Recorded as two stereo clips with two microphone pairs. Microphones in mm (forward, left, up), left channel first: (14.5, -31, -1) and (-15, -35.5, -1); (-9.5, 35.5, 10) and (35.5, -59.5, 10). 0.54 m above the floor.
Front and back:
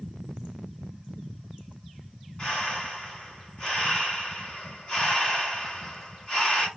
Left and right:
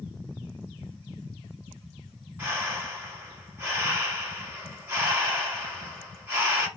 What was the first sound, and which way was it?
Breathing, 15° right.